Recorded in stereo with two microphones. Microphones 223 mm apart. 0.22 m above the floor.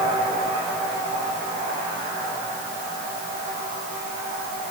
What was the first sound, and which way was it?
Only background noise.